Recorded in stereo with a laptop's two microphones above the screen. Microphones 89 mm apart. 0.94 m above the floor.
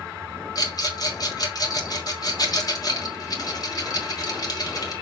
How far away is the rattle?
About 3 m.